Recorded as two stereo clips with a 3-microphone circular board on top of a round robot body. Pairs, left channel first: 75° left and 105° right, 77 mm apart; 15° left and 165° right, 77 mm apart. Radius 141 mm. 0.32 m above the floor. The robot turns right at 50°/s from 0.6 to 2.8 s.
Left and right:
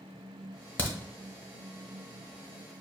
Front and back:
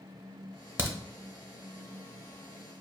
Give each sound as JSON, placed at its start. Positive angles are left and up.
{"t": 0.8, "sound": "a crack", "azimuth_deg": 140, "distance_m": 0.9}